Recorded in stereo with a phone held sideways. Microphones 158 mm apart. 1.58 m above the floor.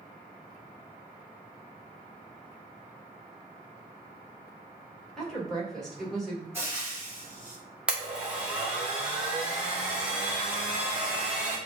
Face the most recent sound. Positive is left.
turn(degrees=-5)  # may be behind; listen again after turning